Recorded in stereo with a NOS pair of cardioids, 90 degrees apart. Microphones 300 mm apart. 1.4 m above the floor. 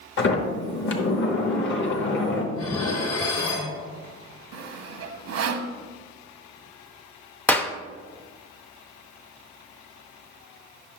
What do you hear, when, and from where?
0.2 s a sliding door: 40° left, 1.1 m
2.5 s dishes clattering: 60° left, 1.8 m
4.5 s sawing: 55° right, 0.7 m
7.5 s a clap: 5° left, 0.5 m